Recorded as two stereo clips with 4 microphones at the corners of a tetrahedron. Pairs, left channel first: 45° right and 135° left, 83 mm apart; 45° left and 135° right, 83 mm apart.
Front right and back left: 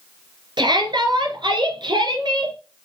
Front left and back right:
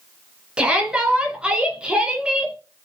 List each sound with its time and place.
0.6 s a shout: 150° left, 2.5 m